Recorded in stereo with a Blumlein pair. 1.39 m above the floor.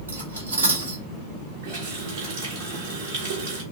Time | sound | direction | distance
0.1 | cutlery clinking | 70° right | 1.8 m
1.6 | a running tap | 50° right | 1.8 m